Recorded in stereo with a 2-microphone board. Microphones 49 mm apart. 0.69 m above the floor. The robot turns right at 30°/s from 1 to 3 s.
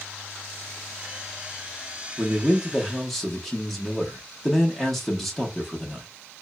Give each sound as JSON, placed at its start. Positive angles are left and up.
{"t": 2.2, "sound": "a man speaking", "side_deg": -15, "distance_m": 1.1}